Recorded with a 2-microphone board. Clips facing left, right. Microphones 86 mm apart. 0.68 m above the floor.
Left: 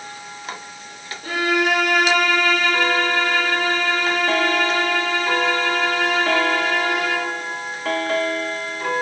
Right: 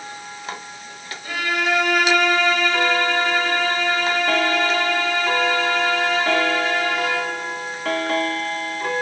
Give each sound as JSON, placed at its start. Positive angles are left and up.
{"t": 1.2, "sound": "a violin", "side_deg": 50, "distance_m": 4.0}